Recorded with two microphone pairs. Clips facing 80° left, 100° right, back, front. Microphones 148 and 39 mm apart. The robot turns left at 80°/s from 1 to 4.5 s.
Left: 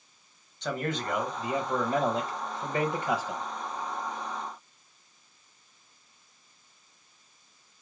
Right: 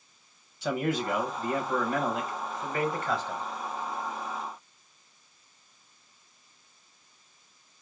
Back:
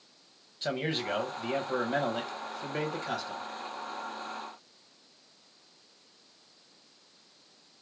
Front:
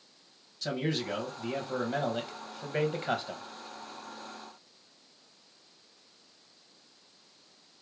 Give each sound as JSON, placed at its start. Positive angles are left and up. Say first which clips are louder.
{"t": 0.6, "sound": "a man speaking", "louder": "right 3 dB, even", "azimuth_deg": -175, "distance_m": 1.2}